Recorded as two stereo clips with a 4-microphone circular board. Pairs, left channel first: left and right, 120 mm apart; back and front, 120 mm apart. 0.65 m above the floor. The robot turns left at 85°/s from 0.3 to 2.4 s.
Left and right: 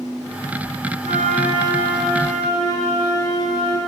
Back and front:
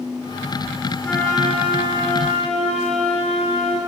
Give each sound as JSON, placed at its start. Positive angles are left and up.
{"t": 1.0, "sound": "a flute", "azimuth_deg": -95, "distance_m": 3.5}